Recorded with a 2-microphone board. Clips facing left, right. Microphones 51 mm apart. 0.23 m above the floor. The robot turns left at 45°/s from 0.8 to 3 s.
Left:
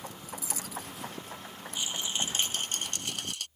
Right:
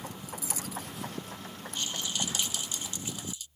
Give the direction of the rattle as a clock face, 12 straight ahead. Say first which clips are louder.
Left 1 dB; 6 o'clock.